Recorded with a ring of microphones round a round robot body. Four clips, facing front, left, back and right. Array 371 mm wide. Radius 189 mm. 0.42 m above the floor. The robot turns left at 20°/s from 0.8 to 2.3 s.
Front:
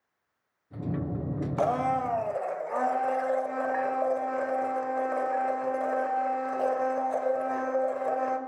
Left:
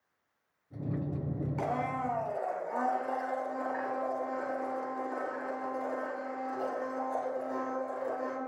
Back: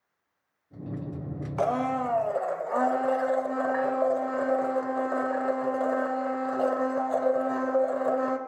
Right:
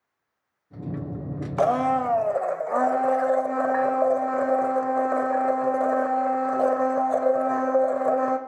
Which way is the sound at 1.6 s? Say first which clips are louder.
Right 13 dB, even; 90° right.